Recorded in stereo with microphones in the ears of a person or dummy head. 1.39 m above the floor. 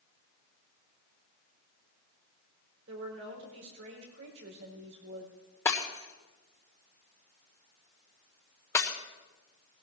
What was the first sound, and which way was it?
A woman speaking, 65° right (ahead or behind).